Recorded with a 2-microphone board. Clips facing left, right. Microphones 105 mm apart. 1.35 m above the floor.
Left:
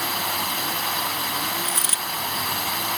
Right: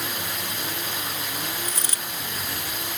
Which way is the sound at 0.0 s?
65° left (ahead or behind).